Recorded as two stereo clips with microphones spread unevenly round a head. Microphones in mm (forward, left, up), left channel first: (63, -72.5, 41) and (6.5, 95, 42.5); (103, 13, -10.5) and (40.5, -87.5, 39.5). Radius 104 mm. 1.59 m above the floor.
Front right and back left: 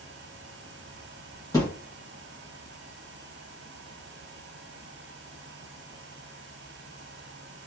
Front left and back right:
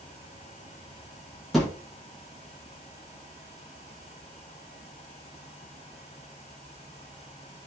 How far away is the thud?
About 0.9 m.